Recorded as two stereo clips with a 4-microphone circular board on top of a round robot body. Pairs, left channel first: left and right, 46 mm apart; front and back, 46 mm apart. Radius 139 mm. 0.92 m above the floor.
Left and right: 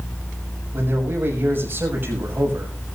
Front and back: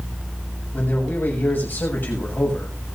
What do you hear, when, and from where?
0.7 s a man speaking: 50° right, 6.5 m